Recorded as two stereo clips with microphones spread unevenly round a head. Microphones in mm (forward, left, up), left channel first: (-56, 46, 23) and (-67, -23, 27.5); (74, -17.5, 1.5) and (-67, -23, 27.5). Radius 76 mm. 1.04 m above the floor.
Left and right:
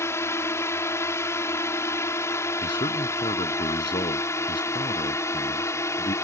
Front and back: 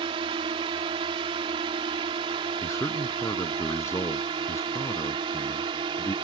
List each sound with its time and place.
0.0 s a drone: 125° left
2.6 s a man speaking: 75° left